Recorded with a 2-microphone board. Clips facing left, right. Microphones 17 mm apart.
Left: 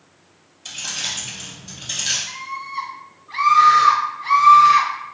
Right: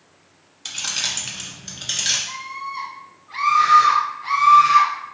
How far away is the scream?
About 1.6 m.